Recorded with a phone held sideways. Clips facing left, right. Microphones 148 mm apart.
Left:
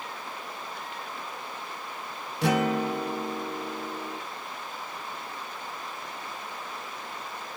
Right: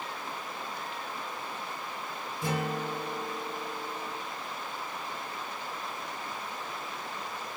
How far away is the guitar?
About 1.1 m.